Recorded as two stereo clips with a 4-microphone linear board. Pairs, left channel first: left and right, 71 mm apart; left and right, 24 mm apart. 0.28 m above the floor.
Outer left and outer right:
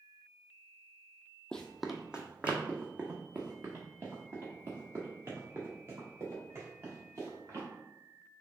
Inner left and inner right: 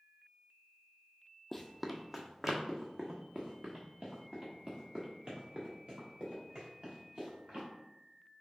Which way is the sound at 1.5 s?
10° left (ahead or behind).